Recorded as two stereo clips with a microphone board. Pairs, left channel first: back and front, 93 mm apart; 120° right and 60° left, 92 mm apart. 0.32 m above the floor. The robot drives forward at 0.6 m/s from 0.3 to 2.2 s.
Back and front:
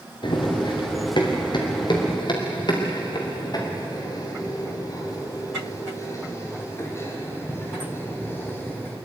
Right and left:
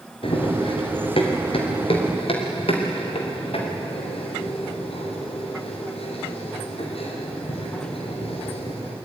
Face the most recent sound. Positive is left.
turn(degrees=-110)